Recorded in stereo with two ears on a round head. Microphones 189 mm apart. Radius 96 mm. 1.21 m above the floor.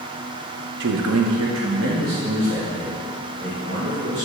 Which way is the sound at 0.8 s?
55° right (ahead or behind).